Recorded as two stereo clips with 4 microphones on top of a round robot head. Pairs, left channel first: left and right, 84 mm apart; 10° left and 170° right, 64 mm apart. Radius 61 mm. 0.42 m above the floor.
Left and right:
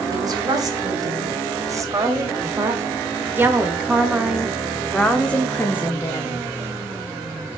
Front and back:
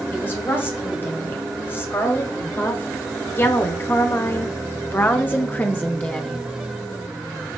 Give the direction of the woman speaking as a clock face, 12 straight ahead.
2 o'clock.